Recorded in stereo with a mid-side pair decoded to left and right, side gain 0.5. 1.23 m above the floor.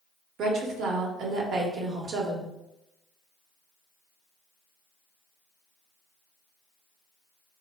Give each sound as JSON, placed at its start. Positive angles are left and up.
{"t": 0.4, "sound": "a woman speaking", "azimuth_deg": -60, "distance_m": 0.9}